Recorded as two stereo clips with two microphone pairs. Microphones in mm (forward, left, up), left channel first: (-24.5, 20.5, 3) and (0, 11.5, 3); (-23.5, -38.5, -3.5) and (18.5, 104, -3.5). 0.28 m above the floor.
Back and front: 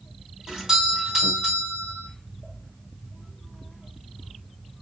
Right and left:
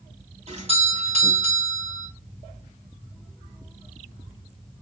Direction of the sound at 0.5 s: 45° left.